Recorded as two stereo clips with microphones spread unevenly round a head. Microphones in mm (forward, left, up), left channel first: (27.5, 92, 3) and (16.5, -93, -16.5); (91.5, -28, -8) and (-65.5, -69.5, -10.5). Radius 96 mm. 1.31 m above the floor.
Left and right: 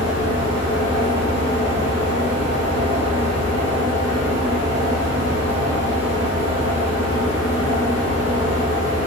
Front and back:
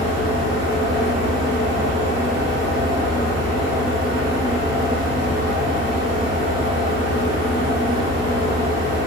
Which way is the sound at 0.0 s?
25° left.